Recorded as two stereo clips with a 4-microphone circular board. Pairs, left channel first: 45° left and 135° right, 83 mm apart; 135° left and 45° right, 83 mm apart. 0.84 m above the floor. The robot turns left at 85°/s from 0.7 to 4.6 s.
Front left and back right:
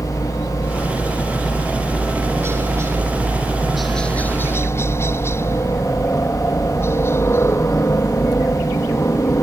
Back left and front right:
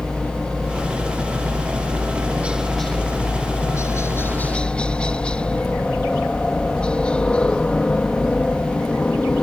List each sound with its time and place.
0.0 s a helicopter: 40° left; by 9.4 s 65° left